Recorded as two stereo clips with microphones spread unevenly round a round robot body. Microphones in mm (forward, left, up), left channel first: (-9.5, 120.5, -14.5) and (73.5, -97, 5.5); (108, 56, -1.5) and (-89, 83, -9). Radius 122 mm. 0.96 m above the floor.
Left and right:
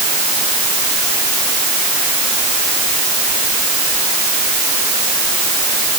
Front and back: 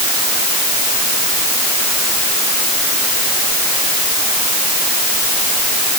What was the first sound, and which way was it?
Only background noise.